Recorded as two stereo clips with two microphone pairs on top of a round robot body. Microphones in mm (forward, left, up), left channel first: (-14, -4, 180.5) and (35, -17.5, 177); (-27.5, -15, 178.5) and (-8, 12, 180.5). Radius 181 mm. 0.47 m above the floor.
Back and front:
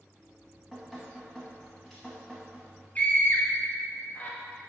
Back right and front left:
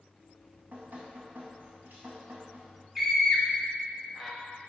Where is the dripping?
80° left, 0.6 m.